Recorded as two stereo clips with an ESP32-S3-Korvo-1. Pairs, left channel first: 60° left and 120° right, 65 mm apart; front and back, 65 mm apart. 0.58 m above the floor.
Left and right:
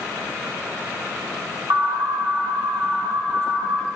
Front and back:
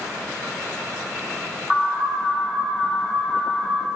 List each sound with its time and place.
1.7 s an alarm: 95° right, 2 m